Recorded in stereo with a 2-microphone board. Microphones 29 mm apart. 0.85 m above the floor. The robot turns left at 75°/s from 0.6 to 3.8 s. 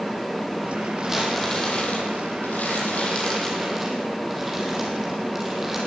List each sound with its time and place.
1.0 s crumpling: 160° right, 8.5 m; by 5.8 s 10° right, 8.5 m